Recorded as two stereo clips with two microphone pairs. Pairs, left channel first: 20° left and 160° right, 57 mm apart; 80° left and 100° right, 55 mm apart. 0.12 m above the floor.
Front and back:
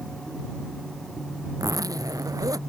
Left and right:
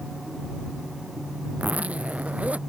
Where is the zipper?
165° right.